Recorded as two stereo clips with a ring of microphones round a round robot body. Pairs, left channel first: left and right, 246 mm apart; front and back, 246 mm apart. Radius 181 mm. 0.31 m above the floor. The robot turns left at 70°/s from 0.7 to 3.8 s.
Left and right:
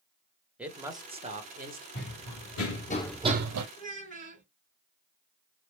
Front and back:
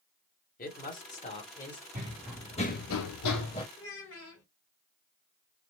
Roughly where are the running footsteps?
Behind left.